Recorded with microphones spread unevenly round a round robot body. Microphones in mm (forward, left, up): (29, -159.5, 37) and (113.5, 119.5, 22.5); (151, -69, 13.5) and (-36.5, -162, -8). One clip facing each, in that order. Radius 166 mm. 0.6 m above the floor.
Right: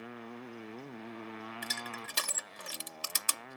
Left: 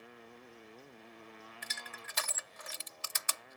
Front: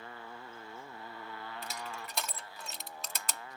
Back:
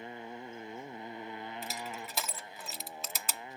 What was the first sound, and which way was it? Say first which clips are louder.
A motorcycle: right 10 dB, back 4 dB; 85° right.